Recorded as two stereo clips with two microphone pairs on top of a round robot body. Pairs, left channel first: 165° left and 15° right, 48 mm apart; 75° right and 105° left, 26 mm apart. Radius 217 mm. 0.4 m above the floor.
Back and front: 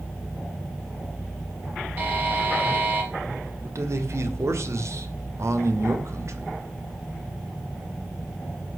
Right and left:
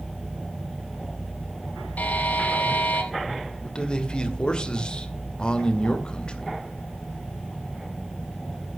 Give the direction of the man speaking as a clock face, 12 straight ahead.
1 o'clock.